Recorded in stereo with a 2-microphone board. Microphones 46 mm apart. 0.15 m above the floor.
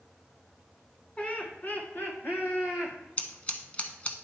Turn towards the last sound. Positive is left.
turn(degrees=30)  # may be behind; listen again after turning